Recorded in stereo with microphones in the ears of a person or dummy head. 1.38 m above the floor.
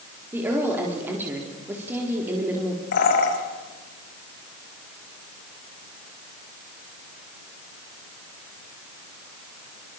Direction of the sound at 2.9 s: 65° left (ahead or behind).